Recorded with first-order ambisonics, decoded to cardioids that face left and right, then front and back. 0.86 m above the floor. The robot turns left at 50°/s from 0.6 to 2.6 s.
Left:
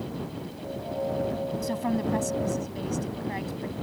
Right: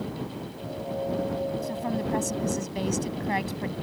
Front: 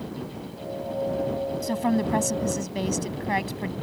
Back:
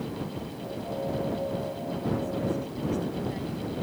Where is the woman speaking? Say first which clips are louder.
Left 1 dB, front 6 dB; 25° left; by 3.7 s 25° right.